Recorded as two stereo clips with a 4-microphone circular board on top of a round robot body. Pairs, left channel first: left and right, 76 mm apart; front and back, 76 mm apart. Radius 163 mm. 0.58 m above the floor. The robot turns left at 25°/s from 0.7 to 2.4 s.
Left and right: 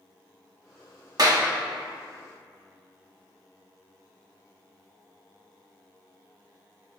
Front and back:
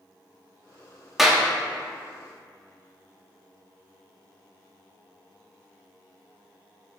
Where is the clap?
90° right, 1.4 m; by 1.4 s 100° right, 1.4 m.